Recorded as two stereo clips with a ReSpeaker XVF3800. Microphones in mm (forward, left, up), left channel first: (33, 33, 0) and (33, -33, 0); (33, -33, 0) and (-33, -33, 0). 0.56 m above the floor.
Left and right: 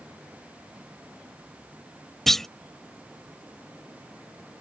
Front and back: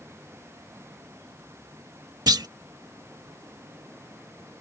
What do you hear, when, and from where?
2.3 s a clunk: 175° left